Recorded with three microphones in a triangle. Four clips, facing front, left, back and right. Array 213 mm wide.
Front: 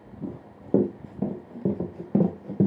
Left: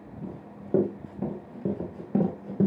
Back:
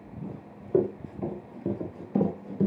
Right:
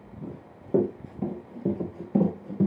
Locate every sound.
0.2 s running footsteps: straight ahead, 3.5 m; by 2.7 s 15° left, 2.5 m